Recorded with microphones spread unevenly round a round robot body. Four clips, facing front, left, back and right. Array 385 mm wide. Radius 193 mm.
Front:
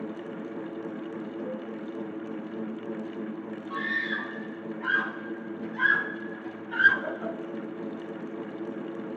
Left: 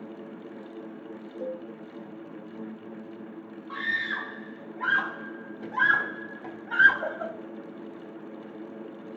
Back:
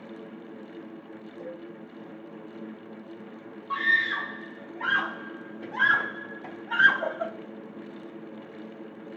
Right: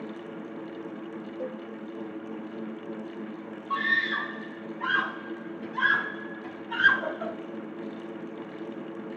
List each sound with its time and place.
1.4 s a cowbell: 60° left, 4 m
3.7 s a scream: 155° left, 4.5 m